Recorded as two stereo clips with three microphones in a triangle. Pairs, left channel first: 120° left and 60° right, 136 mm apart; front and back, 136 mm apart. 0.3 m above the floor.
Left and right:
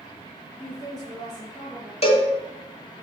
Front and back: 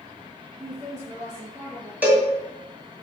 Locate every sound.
0.6 s a woman speaking: 175° left, 4 m
2.0 s a cowbell: 105° left, 2.5 m